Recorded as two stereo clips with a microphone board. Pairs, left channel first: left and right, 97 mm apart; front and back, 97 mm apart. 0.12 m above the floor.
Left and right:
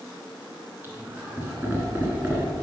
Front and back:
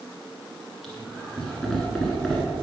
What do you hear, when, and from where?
0.8 s laughter: 80° right, 1.5 m